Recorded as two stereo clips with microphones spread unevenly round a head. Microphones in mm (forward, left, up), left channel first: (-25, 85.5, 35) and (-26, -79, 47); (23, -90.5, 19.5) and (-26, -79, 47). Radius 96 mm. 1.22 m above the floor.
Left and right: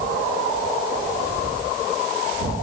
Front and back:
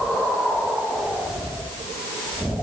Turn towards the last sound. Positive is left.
No sound to turn to.